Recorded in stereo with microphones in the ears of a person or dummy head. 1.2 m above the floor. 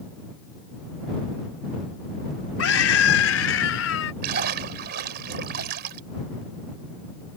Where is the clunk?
No clunk in this recording.